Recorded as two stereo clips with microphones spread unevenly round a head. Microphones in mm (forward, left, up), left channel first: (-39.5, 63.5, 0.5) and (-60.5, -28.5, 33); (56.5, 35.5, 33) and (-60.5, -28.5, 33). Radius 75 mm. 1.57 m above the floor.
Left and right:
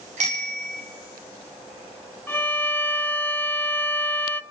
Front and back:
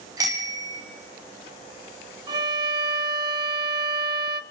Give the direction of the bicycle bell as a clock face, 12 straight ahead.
3 o'clock.